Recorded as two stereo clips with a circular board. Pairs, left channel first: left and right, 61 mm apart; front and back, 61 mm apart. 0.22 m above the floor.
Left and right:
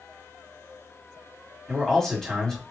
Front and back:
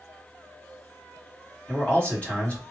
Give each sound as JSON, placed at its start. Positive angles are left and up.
{"t": 1.7, "sound": "a man speaking", "azimuth_deg": 25, "distance_m": 1.6}